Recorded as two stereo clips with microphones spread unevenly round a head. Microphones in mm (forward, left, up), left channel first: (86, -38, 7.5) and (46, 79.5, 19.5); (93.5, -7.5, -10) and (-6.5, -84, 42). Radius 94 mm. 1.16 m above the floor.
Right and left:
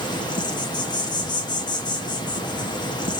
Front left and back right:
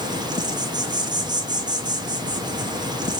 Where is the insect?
75° right, 1.6 m.